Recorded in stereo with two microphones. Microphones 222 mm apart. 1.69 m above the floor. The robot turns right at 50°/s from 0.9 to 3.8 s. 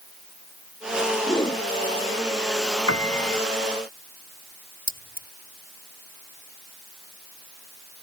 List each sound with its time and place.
1.3 s a whoosh: 10° left (ahead or behind); by 1.6 s 30° left (ahead or behind)
2.9 s a piano: 80° left; by 3.4 s 55° left (ahead or behind)
4.9 s keys jangling: 45° right (ahead or behind)